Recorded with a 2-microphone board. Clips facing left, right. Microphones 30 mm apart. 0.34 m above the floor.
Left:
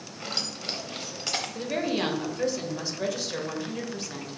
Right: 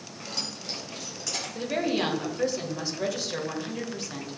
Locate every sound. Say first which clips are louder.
0.2 s keys jangling: left 3 dB; 55° left (ahead or behind), 1.1 m; by 1.4 s 40° left (ahead or behind), 1.2 m
1.6 s a woman speaking: right 3 dB; centre (ahead or behind), 1.2 m